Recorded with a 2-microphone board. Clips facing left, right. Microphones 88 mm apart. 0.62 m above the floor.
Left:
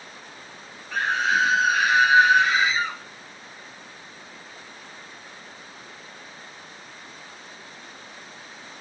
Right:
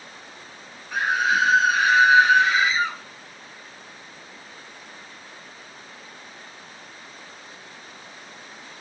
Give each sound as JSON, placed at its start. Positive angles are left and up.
{"t": 0.9, "sound": "a scream", "side_deg": -15, "distance_m": 0.7}